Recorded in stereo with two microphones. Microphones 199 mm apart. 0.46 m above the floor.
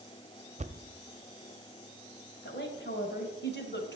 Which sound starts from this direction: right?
A thud, at 0.6 s.